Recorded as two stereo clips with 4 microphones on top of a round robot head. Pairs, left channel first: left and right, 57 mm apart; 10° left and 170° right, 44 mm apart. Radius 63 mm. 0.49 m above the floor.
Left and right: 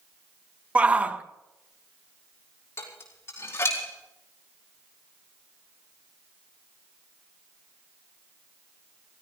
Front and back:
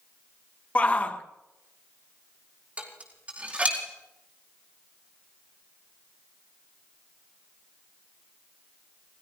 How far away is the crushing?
No crushing in this recording.